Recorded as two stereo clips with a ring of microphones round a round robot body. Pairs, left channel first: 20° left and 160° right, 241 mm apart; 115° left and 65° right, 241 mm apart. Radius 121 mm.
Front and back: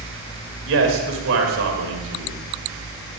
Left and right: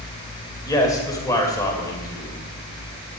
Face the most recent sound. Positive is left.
turn(degrees=-175)